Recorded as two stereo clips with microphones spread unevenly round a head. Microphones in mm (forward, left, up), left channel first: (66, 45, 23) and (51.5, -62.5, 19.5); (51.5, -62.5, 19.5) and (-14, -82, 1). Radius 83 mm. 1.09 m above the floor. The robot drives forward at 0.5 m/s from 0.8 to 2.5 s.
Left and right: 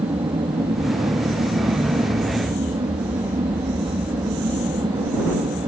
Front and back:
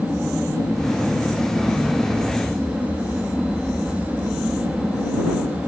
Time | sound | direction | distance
0.0 | an aircraft | 65° right | ?